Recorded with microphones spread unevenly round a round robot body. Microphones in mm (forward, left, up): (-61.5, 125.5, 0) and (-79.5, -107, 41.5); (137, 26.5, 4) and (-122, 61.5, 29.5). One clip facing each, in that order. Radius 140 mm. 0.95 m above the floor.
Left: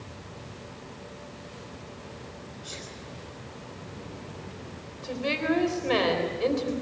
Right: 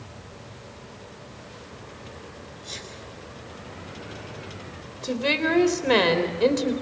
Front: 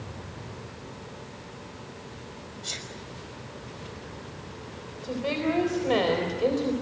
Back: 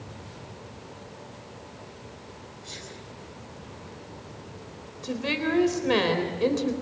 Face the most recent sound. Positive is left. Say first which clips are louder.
# right 3 dB, front 1 dB
turn(degrees=-125)